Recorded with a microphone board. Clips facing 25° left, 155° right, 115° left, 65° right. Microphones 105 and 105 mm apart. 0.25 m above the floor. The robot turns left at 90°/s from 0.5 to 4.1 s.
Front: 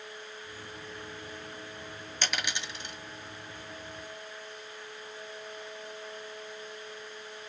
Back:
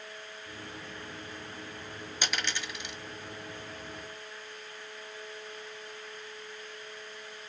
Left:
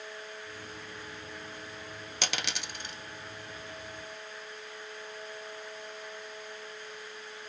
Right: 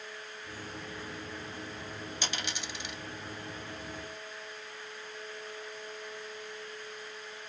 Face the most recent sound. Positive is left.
turn(degrees=-45)